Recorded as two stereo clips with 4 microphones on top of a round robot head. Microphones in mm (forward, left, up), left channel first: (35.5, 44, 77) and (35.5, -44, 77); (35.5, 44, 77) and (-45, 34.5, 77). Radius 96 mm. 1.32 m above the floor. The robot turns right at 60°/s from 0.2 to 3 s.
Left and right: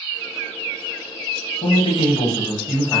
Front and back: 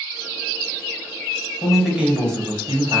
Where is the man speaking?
90° left, 1.3 m; by 3.0 s 170° left, 1.3 m.